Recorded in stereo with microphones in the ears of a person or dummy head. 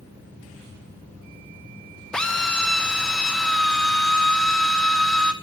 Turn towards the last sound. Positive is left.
turn(degrees=0)  # may be behind; listen again after turning